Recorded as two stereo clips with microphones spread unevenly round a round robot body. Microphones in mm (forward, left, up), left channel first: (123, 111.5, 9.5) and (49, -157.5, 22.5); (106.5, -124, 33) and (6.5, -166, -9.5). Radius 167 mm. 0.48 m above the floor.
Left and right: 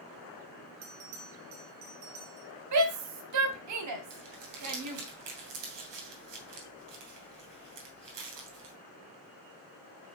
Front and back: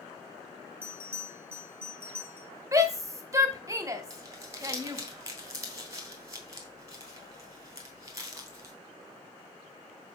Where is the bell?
80° right, 1.9 m.